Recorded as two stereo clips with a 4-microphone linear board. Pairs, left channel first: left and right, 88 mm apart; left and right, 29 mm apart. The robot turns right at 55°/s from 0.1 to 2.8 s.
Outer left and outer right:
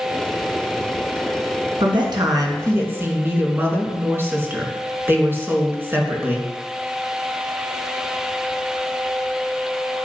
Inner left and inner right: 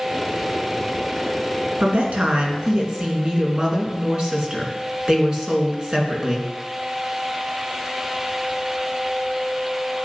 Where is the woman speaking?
80° right, 3.5 m; by 6.5 s 25° right, 3.5 m.